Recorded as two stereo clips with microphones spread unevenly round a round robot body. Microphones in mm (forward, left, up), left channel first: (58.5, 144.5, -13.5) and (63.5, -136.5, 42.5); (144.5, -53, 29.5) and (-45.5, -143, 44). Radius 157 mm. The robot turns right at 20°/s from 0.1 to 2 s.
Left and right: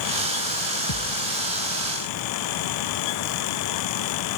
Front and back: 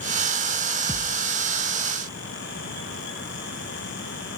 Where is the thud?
115° left, 1.6 m; by 1.3 s 125° left, 1.6 m.